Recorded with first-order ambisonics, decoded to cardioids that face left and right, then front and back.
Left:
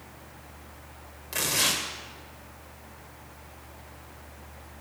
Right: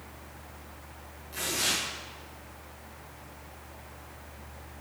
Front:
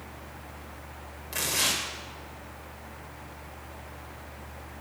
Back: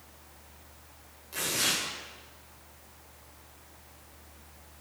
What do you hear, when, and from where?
1.3 s tearing paper: 55° left, 2 m